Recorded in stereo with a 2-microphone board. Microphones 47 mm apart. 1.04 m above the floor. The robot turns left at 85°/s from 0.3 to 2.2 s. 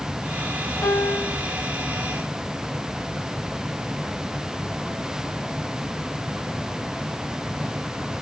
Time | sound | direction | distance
0.8 | a piano | 75° left | 1.3 m